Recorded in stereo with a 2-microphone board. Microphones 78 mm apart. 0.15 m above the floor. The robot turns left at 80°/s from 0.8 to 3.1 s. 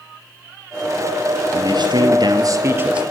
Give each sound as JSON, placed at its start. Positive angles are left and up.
{"t": 1.5, "sound": "a man speaking", "azimuth_deg": -50, "distance_m": 3.0}